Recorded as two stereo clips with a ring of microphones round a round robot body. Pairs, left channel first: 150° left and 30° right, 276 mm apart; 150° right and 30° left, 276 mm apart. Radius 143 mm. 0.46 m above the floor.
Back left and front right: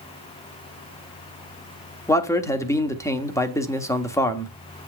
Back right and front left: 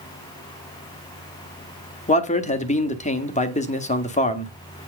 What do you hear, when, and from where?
2.1 s a man speaking: 145° right, 1.2 m